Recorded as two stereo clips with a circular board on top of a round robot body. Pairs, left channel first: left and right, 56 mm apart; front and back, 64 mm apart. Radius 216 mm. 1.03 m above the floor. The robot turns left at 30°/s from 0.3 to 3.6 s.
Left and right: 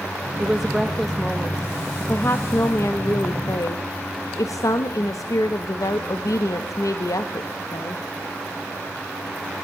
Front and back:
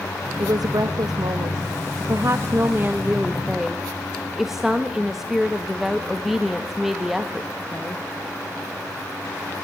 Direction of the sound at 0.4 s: 170° right.